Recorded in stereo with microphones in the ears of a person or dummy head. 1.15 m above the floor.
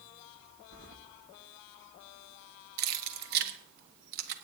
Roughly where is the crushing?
No crushing in this recording.